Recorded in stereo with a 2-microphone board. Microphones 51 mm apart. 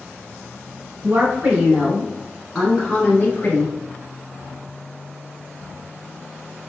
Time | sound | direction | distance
1.0 | a woman speaking | 40° right (ahead or behind) | 1.6 m